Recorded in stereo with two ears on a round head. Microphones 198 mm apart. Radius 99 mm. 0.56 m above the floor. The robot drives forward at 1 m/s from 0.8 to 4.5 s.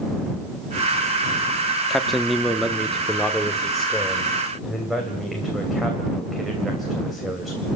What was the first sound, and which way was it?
A man speaking, centre (ahead or behind).